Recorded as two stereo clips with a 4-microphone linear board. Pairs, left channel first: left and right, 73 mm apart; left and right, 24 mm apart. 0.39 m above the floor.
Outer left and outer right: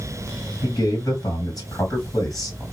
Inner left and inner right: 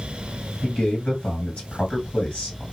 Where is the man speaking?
50° left (ahead or behind), 2.5 m.